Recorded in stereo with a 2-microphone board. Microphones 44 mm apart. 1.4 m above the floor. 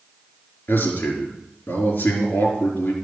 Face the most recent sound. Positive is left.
turn(degrees=60)  # may be behind; listen again after turning